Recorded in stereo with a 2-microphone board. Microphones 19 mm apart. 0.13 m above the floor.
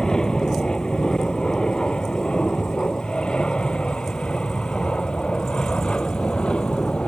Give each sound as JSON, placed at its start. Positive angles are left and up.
{"t": 0.0, "sound": "an aircraft", "side_deg": 45}